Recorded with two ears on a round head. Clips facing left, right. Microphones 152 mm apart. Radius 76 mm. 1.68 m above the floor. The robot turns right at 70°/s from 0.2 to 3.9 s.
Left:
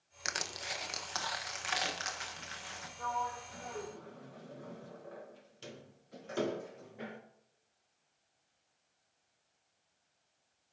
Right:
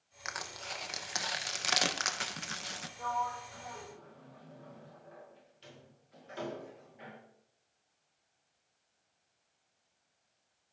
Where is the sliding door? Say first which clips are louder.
Right 2 dB; 10° right (ahead or behind), 2 m; by 7.2 s 55° left (ahead or behind), 2 m.